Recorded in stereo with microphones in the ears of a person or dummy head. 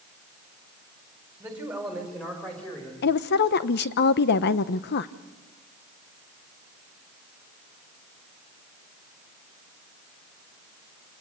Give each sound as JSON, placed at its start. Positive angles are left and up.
{"t": 1.4, "sound": "a man speaking", "side_deg": -10, "distance_m": 4.0}
{"t": 3.0, "sound": "a woman speaking", "side_deg": 50, "distance_m": 0.8}